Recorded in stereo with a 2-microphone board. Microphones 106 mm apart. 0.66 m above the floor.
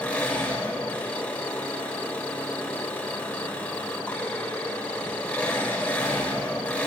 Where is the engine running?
15° left (ahead or behind), 2.5 m.